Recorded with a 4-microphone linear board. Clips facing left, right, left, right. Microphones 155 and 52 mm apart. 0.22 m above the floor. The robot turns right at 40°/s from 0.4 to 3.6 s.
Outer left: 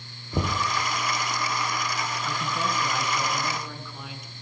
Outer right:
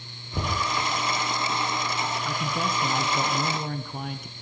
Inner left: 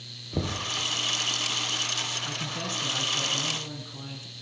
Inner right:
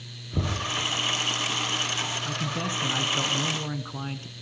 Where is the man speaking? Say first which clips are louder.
Outer right 1 dB, inner right 4 dB; 170° right, 2.0 m; by 4.3 s 115° right, 2.0 m.